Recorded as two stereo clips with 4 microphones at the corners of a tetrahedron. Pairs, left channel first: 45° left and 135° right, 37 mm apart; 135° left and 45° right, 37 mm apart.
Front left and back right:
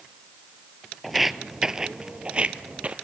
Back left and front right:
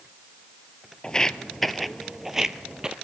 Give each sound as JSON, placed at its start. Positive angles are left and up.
{"t": 1.0, "sound": "footsteps", "azimuth_deg": 145, "distance_m": 0.9}